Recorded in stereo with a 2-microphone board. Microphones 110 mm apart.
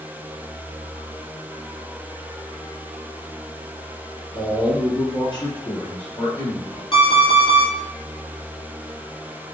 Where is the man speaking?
35° left (ahead or behind), 1.4 m; by 6.8 s 45° left (ahead or behind), 1.8 m.